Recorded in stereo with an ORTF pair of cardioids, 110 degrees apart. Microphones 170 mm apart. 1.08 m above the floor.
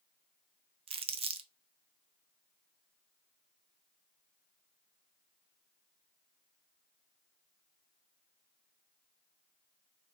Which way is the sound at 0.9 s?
35° right.